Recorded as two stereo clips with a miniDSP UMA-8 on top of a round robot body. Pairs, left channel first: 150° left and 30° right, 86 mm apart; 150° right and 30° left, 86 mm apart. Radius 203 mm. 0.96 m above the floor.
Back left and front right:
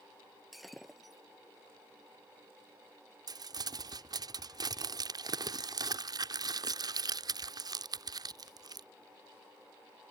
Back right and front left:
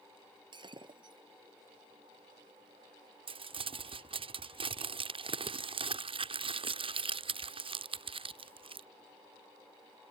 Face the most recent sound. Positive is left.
turn(degrees=15)